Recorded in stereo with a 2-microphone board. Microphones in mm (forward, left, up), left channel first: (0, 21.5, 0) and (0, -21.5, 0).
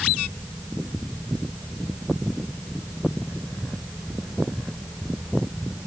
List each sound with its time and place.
Only background noise.